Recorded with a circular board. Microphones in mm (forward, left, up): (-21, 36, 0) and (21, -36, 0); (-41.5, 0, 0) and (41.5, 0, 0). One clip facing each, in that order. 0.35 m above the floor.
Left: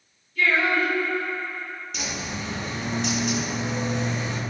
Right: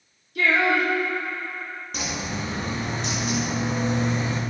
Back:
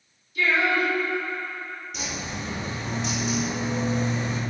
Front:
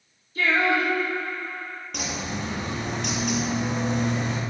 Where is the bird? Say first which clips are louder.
Right 3 dB, front 4 dB; 15° right, 2 m.